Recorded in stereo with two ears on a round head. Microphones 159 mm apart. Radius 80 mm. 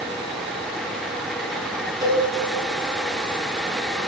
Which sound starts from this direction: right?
A cowbell, at 2.0 s.